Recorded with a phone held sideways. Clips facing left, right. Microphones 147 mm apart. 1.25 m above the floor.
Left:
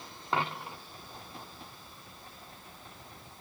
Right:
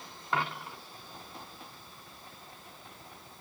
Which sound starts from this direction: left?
A dropped coin, at 0.3 s.